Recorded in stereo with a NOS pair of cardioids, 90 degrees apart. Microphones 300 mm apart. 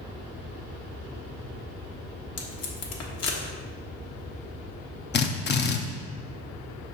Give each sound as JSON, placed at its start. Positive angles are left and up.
{"t": 2.4, "sound": "tape being pulled", "azimuth_deg": 55, "distance_m": 1.4}
{"t": 5.1, "sound": "a drill", "azimuth_deg": 35, "distance_m": 0.8}